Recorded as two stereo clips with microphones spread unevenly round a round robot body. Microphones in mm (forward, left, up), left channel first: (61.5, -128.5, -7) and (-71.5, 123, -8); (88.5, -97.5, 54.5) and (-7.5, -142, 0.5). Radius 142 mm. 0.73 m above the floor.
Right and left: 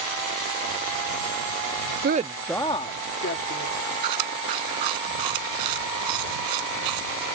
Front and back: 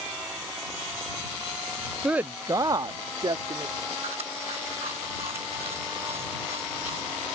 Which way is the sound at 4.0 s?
130° left.